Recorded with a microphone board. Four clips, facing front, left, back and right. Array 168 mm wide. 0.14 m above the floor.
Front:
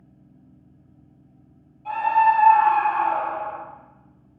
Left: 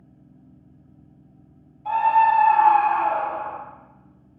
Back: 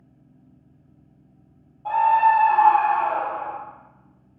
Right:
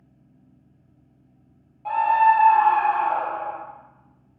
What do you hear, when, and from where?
1.9 s a scream: 130° right, 4.5 m; by 3.6 s 160° right, 3 m